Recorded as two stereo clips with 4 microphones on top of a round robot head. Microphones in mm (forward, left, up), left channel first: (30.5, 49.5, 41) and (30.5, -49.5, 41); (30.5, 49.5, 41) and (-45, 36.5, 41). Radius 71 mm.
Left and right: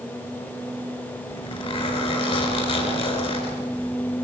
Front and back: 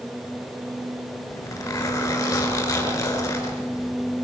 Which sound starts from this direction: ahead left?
A zipper, at 1.3 s.